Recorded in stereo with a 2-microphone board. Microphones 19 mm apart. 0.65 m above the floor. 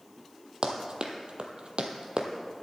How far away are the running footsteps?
About 1.5 m.